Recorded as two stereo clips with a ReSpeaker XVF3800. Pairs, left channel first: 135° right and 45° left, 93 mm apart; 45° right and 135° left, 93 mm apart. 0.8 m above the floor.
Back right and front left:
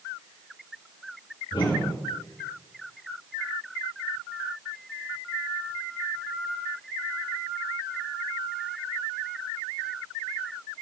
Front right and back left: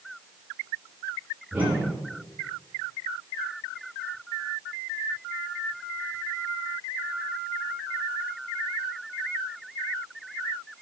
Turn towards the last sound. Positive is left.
turn(degrees=-155)